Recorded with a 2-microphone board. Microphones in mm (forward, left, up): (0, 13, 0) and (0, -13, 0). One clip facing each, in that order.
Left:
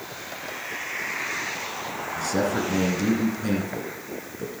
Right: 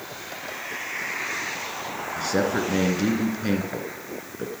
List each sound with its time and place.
2.2 s a man speaking: 20° right (ahead or behind), 1.9 m